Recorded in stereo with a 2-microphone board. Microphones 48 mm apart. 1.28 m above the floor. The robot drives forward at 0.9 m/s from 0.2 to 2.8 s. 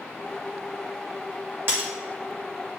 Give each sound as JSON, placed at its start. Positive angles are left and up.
{"t": 1.7, "sound": "breaking glass", "side_deg": -55, "distance_m": 3.0}